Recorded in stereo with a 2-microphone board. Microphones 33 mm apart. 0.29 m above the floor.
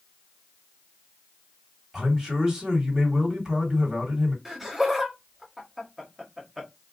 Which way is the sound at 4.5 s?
10° right (ahead or behind).